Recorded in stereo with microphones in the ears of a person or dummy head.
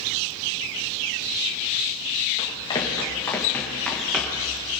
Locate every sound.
2.4 s running footsteps: 30° left (ahead or behind), 4 m; by 4.5 s 5° right (ahead or behind), 4.5 m